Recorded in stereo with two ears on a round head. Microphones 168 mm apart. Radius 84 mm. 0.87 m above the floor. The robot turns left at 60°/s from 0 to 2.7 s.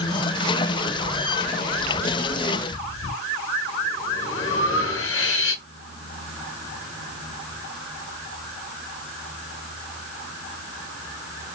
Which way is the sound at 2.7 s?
70° left (ahead or behind).